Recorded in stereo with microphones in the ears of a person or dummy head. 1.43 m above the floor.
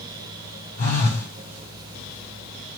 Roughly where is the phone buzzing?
Left.